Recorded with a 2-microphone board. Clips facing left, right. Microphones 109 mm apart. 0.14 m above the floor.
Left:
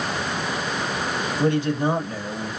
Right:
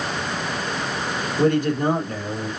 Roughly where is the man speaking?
Right.